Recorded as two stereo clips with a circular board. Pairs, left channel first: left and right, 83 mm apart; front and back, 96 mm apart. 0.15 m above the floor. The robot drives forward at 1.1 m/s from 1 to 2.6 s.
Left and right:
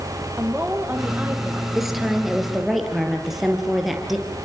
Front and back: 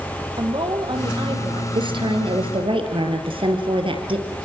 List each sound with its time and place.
0.4 s a woman speaking: 155° right, 4.5 m; by 1.6 s 160° right, 5 m
1.8 s a woman speaking: 175° right, 3.5 m